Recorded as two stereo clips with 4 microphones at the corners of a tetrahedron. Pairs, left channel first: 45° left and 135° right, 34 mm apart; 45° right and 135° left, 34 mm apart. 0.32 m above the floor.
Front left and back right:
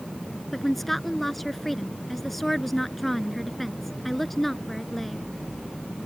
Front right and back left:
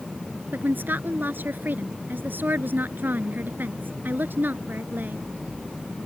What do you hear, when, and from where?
0.5 s a woman speaking: 130° left